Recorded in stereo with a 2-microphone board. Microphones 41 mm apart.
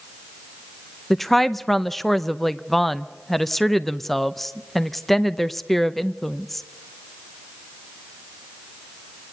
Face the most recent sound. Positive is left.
turn(degrees=5)  # may be behind; listen again after turning